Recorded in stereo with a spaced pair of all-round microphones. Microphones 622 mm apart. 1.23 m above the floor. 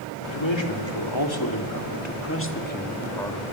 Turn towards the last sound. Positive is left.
turn(degrees=0)  # may be behind; listen again after turning